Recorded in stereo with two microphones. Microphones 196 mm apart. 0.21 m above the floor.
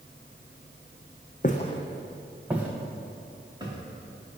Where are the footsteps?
45° left (ahead or behind), 0.6 m; by 4.4 s 25° right (ahead or behind), 2.5 m.